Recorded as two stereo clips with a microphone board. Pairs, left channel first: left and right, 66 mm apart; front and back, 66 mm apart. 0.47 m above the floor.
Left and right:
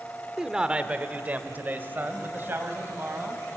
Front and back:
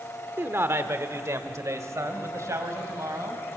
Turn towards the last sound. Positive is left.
turn(degrees=-145)